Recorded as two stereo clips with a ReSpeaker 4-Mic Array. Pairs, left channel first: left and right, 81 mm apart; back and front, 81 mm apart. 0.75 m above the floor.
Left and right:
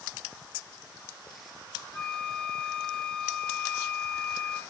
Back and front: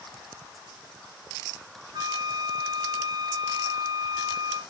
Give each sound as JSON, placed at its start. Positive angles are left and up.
{"t": 1.9, "sound": "a flute", "azimuth_deg": 15, "distance_m": 1.6}